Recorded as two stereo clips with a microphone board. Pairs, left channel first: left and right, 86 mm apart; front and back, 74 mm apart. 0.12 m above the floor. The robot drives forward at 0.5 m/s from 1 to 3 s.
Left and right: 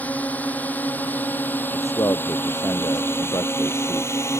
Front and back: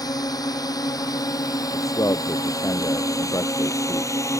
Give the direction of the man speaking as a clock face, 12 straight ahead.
11 o'clock.